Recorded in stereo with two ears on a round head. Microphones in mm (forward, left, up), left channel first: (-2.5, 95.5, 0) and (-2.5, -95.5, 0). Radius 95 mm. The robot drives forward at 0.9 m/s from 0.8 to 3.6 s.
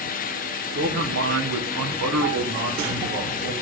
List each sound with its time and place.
0.8 s a man speaking: 45° right (ahead or behind), 1.2 m; by 3.5 s 30° right (ahead or behind), 1.8 m